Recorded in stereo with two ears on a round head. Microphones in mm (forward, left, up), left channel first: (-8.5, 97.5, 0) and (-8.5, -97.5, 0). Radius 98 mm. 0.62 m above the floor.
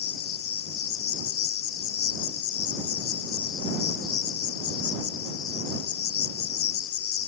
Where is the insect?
70° left (ahead or behind).